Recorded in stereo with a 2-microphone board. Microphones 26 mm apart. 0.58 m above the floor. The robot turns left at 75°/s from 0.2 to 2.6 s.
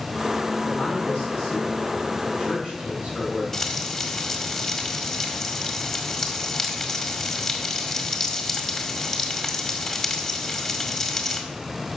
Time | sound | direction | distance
0.6 | a man speaking | 110° left | 4 m
3.5 | frying | 15° left (ahead or behind) | 1.6 m